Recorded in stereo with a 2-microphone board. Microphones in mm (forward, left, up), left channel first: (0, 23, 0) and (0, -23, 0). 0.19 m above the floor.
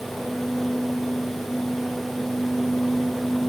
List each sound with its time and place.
Only background noise.